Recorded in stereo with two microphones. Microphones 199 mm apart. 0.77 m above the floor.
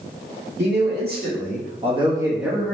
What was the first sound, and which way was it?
A man speaking, 60° right (ahead or behind).